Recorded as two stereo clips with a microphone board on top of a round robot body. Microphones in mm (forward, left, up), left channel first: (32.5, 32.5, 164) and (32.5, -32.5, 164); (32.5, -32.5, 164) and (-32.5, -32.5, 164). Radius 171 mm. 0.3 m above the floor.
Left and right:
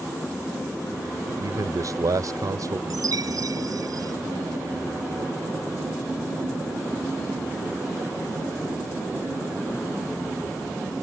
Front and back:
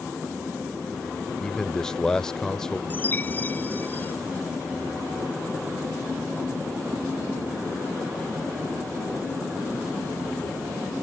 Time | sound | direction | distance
1.3 | a man speaking | 80° right | ?
2.9 | a chime | 60° right | ?